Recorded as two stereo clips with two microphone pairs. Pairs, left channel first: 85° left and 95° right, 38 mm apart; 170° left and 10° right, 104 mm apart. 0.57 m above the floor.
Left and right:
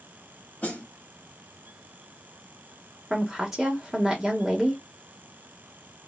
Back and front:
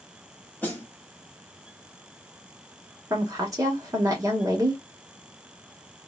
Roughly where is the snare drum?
Left.